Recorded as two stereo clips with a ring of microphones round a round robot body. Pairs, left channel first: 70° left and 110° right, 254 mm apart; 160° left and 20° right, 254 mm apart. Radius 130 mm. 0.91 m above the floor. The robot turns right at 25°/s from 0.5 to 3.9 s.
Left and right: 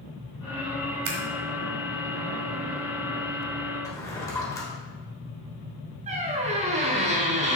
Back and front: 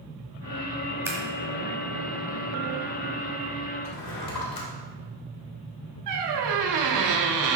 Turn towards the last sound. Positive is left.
turn(degrees=-45)